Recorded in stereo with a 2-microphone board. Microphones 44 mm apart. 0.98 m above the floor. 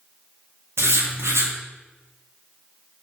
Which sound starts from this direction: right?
Writing, at 0.8 s.